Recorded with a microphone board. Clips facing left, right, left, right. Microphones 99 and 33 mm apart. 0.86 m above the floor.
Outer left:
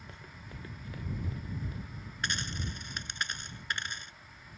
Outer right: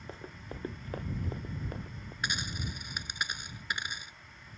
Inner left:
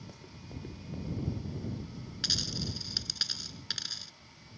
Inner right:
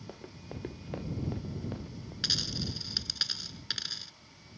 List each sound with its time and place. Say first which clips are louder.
0.1 s running footsteps: outer right 9 dB, inner right 3 dB; 35° right (ahead or behind); by 2.1 s 55° right (ahead or behind)
2.2 s a dropped coin: even, inner right 1 dB; 10° right (ahead or behind)